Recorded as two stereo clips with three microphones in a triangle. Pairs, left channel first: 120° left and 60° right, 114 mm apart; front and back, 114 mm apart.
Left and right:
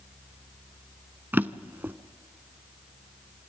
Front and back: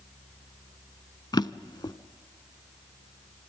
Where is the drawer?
5° left, 0.6 m.